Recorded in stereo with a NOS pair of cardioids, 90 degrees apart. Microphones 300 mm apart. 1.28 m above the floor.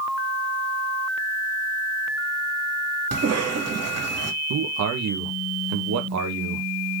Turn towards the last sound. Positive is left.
turn(degrees=-60)